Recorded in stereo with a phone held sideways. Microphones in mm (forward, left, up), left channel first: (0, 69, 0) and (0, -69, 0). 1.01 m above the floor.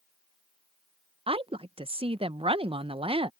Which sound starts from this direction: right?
A woman speaking, at 1.3 s.